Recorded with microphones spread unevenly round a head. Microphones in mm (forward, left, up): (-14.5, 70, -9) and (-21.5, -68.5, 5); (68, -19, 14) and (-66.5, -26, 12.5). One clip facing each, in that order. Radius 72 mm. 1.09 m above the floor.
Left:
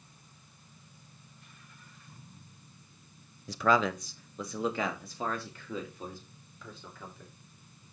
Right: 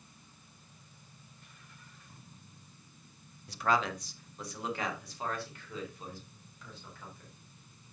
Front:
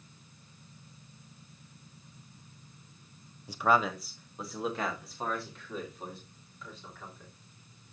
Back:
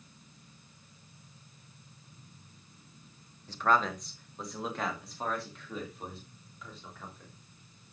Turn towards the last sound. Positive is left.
turn(degrees=95)